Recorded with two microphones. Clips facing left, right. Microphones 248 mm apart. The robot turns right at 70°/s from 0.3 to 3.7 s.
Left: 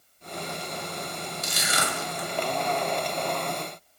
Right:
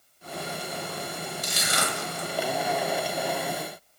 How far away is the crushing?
About 0.8 m.